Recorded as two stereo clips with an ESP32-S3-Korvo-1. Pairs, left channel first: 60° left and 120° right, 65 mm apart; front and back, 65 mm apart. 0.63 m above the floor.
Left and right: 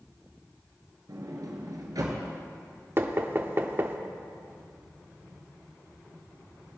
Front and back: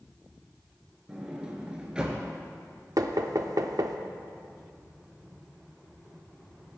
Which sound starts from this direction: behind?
Knocking, at 3.0 s.